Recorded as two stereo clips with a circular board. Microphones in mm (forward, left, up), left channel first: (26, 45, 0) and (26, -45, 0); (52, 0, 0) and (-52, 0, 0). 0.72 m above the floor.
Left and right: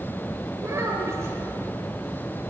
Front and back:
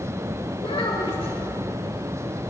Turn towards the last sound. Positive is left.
turn(degrees=-30)